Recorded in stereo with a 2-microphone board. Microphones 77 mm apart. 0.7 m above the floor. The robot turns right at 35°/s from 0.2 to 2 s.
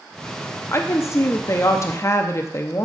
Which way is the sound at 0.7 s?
65° left.